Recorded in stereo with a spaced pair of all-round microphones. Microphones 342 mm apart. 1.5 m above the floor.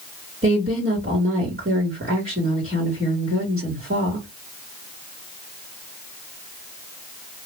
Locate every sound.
0.4 s a woman speaking: 30° right (ahead or behind), 1.2 m